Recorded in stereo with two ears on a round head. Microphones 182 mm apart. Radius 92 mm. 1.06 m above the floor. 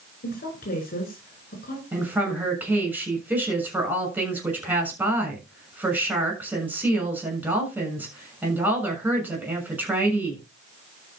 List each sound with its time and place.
0.2 s a woman speaking: 45° left (ahead or behind), 5 m
1.9 s a woman speaking: 10° right (ahead or behind), 7 m